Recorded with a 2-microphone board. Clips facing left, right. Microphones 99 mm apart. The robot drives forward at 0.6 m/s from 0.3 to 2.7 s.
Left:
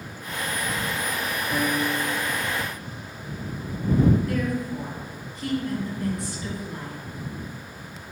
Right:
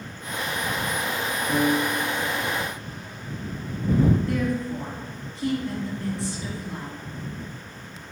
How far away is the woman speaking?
About 3 m.